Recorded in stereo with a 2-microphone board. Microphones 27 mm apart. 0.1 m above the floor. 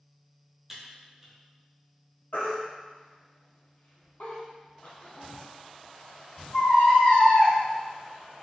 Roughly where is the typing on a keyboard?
Centre.